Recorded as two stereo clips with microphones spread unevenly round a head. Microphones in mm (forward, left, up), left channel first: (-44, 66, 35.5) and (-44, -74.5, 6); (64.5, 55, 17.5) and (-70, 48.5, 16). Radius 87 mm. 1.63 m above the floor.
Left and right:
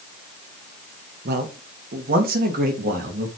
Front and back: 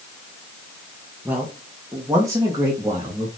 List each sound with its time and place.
1.2 s a man speaking: 95° right, 1.9 m; by 3.3 s 110° right, 3 m